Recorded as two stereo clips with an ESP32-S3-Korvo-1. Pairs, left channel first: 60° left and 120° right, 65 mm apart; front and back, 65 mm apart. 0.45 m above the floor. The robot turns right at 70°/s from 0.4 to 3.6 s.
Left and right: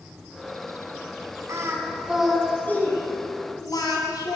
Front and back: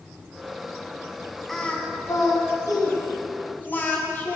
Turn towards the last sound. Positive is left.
turn(degrees=60)